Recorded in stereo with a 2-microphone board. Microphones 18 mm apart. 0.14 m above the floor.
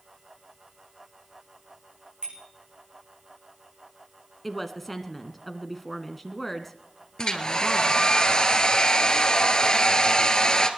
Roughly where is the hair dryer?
Left.